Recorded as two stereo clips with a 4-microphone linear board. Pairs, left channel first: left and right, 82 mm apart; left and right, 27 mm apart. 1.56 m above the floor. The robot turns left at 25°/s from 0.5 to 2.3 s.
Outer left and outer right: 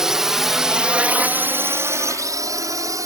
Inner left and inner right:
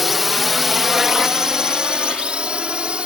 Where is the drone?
5° right (ahead or behind); by 3.1 s 40° right (ahead or behind).